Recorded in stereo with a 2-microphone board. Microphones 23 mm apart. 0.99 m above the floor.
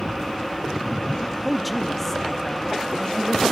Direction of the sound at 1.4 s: 5° right (ahead or behind).